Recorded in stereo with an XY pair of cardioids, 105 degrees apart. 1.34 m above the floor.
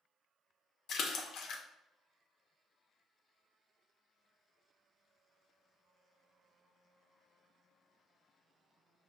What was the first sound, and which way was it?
A splash, 65° left.